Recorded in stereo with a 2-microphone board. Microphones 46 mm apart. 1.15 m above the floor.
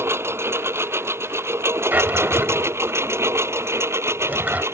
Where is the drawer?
45° right (ahead or behind).